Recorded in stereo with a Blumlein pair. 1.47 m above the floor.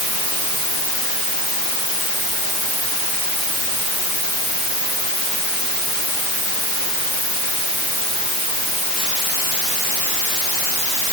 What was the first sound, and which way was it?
Only background noise.